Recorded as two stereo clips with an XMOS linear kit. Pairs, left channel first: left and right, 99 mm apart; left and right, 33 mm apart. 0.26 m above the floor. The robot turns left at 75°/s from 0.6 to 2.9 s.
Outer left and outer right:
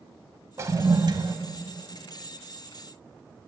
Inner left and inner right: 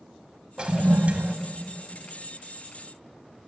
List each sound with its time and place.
0.6 s a toilet flushing: 40° right, 0.7 m; by 1.4 s 100° right, 0.7 m